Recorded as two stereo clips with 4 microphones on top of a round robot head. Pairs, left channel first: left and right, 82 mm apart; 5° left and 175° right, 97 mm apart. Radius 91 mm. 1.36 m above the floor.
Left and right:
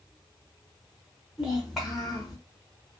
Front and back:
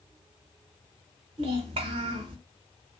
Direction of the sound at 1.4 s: Straight behind.